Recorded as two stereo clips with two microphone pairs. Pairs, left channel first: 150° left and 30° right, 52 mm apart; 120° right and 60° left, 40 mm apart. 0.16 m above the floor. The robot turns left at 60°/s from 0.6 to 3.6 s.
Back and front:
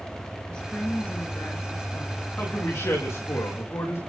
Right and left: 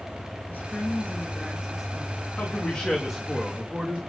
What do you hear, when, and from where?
0.5 s a woman speaking: 140° right, 3 m; by 2.2 s 125° left, 3 m
2.4 s a man speaking: 170° right, 9.5 m; by 4.0 s 120° left, 9.5 m